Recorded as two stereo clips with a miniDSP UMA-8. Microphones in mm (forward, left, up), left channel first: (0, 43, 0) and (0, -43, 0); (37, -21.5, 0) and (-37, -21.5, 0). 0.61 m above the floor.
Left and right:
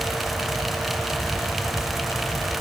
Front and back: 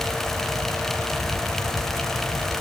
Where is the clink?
I don't hear a clink.